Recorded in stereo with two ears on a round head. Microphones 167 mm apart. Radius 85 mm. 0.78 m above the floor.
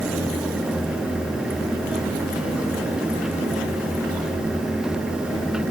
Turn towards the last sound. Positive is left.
No sound to turn to.